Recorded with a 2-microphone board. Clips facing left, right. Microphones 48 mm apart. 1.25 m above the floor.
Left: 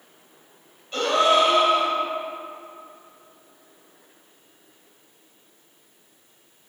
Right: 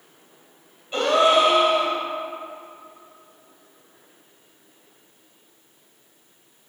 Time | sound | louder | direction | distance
0.9 | a gasp | right 2 dB | 10° right (ahead or behind) | 1.7 m